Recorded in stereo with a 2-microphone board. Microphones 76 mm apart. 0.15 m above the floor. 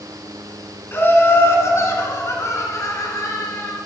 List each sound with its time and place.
0.9 s laughter: 30° left (ahead or behind), 1.4 m; by 3.8 s 45° left (ahead or behind), 2 m